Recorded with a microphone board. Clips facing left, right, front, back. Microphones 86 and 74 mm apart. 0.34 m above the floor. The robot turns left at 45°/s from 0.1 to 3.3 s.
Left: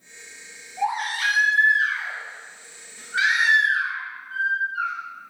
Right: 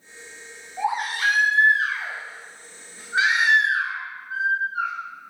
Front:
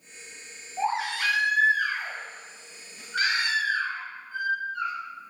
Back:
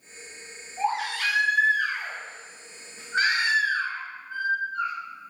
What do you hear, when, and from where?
0.8 s a baby crying: 30° right, 0.9 m; by 4.9 s 145° right, 0.9 m